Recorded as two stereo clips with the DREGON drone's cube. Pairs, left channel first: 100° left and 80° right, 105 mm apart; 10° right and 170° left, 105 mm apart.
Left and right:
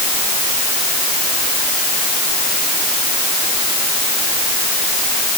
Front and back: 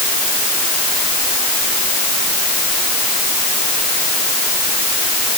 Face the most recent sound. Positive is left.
No sound to turn to.